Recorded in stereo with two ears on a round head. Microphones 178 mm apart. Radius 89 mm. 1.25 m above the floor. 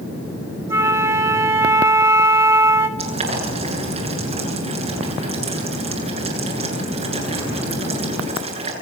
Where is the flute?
15° right (ahead or behind), 2 m.